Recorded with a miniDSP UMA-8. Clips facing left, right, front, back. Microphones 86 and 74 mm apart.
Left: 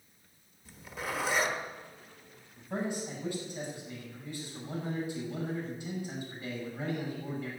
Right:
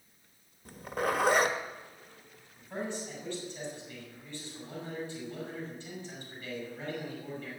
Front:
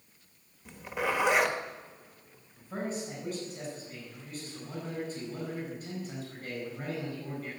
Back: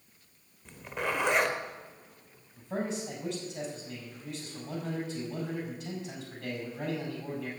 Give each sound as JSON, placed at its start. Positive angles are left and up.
{"t": 0.7, "sound": "a zipper", "azimuth_deg": -85, "distance_m": 1.3}
{"t": 2.6, "sound": "a man speaking", "azimuth_deg": 165, "distance_m": 6.5}